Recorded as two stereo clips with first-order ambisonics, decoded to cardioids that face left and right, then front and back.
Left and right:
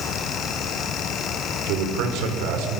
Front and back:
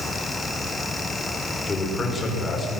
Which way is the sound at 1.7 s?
75° right.